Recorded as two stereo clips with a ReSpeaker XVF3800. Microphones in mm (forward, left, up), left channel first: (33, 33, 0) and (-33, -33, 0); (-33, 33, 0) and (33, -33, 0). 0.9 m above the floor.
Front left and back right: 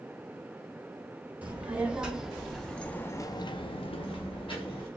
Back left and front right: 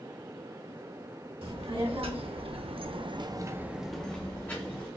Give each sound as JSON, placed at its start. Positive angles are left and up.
{"t": 1.4, "sound": "a child speaking", "azimuth_deg": -60, "distance_m": 1.4}